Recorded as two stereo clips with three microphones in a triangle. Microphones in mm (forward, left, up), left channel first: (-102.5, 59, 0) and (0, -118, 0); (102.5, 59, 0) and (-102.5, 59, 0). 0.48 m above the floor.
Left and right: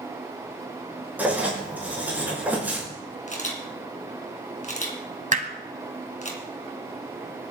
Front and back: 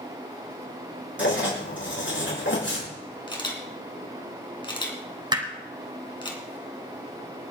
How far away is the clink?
I don't hear a clink.